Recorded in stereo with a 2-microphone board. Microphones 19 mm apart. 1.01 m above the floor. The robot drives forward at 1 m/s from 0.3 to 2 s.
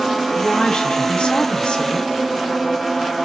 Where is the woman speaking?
70° left (ahead or behind), 2.5 m.